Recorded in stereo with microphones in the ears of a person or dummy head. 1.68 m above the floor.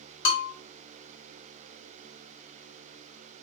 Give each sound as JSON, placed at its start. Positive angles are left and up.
{"t": 0.2, "sound": "a bell", "side_deg": 70, "distance_m": 1.0}